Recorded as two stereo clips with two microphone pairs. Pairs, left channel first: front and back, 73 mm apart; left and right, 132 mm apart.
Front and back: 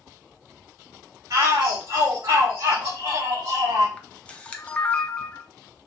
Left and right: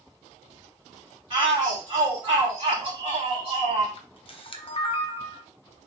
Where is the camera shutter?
70° left, 0.5 m.